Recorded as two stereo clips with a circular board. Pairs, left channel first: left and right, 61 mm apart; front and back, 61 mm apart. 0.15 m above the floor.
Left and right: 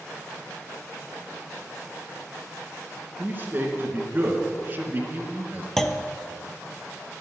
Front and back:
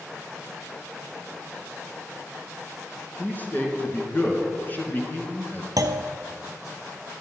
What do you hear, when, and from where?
3.2 s a man speaking: 45° right, 2 m
5.8 s a clunk: 170° left, 0.7 m